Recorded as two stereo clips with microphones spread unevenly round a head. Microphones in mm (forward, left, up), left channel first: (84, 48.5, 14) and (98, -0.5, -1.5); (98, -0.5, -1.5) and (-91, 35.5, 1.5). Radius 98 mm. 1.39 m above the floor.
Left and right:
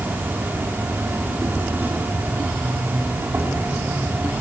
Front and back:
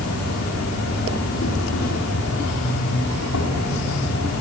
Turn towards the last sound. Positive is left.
turn(degrees=-20)